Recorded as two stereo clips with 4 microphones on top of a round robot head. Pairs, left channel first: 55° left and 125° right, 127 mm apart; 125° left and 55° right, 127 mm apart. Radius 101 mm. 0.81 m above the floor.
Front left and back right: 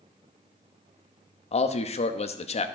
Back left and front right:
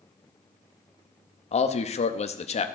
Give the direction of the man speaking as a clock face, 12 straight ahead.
9 o'clock.